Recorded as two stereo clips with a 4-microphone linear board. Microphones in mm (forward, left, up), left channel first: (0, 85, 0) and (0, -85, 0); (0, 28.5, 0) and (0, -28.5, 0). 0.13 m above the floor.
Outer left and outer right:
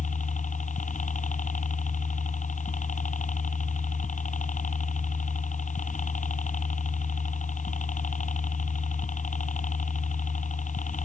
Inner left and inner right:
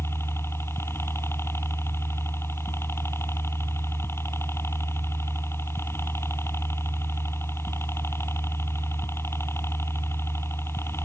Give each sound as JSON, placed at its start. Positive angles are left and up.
{"t": 0.0, "sound": "a helicopter", "side_deg": 45}